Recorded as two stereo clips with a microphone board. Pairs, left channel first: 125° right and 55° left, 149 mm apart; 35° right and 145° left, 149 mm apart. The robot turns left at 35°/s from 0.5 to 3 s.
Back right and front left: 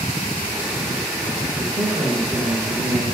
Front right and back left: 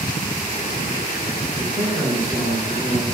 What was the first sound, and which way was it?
A man speaking, 70° left.